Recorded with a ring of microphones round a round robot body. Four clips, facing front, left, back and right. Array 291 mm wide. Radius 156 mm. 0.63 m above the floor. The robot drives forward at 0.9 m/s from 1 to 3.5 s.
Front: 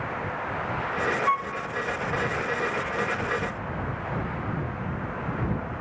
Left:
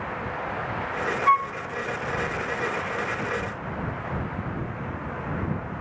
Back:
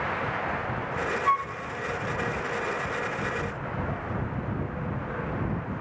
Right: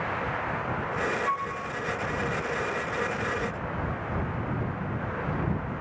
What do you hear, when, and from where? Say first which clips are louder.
1.3 s a flute: left 8 dB, back 4 dB; 95° left, 0.5 m; by 1.5 s 120° left, 0.6 m